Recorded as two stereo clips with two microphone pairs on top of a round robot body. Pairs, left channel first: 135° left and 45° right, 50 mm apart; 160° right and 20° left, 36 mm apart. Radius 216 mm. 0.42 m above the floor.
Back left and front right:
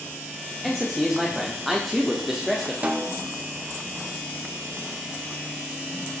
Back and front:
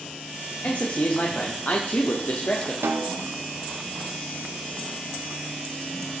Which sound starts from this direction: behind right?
A man speaking, at 0.6 s.